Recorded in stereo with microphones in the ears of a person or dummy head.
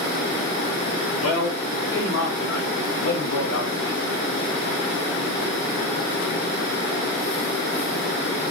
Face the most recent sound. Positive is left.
turn(degrees=80)